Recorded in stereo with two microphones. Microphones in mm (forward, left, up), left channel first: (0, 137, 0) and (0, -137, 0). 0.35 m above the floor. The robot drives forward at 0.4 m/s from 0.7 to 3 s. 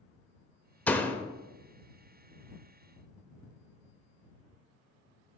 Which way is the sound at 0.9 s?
5° left (ahead or behind).